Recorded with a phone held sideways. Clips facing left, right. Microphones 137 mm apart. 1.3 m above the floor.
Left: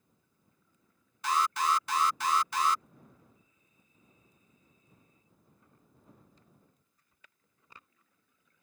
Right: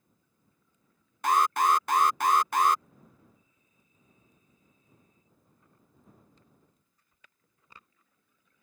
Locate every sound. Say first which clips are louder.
1.2 s an alarm: right 5 dB; 50° right (ahead or behind)